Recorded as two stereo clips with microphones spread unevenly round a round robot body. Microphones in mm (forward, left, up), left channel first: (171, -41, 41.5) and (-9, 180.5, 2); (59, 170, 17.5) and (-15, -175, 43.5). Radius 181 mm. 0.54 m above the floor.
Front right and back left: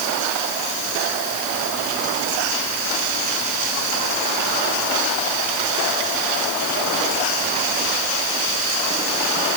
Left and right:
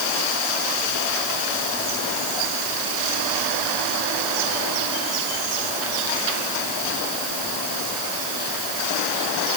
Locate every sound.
Only background noise.